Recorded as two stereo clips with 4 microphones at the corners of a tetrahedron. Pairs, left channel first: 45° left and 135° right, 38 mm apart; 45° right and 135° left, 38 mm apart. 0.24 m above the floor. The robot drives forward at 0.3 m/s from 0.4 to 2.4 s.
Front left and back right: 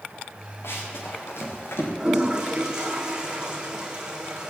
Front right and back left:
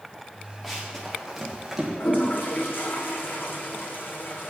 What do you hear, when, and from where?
0.6 s running footsteps: 40° left, 5 m; by 1.9 s 50° left, 5 m
2.0 s a toilet flushing: 60° right, 3 m; by 4.5 s 65° right, 2.5 m